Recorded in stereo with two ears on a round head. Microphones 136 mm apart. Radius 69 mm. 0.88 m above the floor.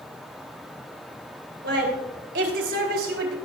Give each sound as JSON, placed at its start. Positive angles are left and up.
{"t": 1.6, "sound": "a woman speaking", "side_deg": -75, "distance_m": 4.0}